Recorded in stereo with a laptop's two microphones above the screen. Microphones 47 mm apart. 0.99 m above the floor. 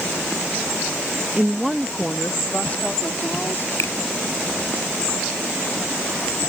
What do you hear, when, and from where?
1.4 s a woman speaking: 25° right (ahead or behind); by 3.7 s 40° left (ahead or behind)
3.8 s a finger snap: 70° left (ahead or behind)